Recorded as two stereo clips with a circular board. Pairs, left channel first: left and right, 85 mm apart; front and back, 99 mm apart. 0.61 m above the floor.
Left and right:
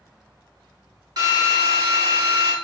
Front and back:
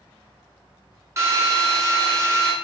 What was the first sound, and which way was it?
A drill, 120° right.